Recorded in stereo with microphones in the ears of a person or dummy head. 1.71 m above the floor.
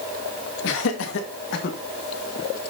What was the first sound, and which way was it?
Laughter, 70° left (ahead or behind).